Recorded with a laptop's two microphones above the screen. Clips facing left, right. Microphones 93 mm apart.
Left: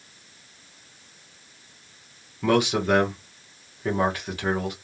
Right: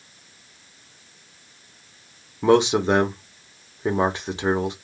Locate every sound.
2.4 s a man speaking: 25° right (ahead or behind), 0.9 m